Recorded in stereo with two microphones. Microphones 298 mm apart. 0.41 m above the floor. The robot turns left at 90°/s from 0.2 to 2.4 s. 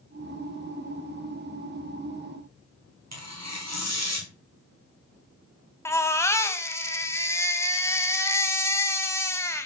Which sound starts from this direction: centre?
A baby crying, at 5.8 s.